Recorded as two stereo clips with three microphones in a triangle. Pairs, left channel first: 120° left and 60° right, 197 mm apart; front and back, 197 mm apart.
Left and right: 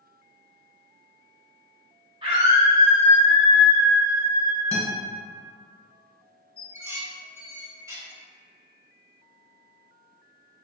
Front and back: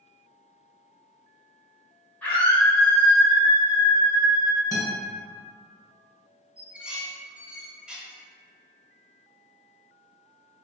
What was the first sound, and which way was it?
A scream, 75° right.